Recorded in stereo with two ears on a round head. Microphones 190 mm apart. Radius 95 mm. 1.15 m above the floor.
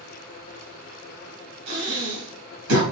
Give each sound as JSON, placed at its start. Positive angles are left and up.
{"t": 1.7, "sound": "breathing", "side_deg": -75, "distance_m": 4.5}